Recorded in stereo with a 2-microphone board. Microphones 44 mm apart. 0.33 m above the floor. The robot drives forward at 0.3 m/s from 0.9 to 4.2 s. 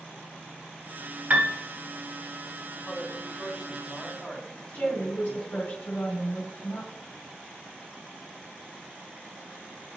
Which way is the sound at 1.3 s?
35° right (ahead or behind).